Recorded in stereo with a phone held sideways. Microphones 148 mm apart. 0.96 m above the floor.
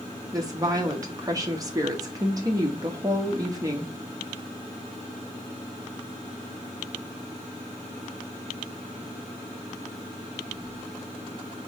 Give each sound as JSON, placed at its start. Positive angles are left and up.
{"t": 0.3, "sound": "a woman speaking", "side_deg": -25, "distance_m": 0.9}